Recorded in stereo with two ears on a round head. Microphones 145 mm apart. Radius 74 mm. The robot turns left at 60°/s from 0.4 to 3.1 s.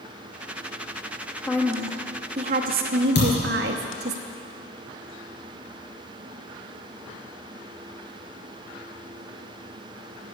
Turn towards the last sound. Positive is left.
turn(degrees=80)